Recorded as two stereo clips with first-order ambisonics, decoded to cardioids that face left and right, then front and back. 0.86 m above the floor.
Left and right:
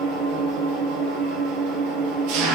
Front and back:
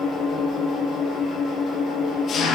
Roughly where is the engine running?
Ahead right.